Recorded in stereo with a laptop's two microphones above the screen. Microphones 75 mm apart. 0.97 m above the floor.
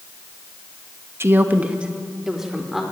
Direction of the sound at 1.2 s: 35° right (ahead or behind).